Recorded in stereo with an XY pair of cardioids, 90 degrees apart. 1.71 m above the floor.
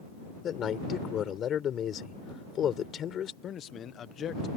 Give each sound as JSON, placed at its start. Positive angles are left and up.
{"t": 0.4, "sound": "a man speaking", "azimuth_deg": 65}
{"t": 3.4, "sound": "a man speaking", "azimuth_deg": 65}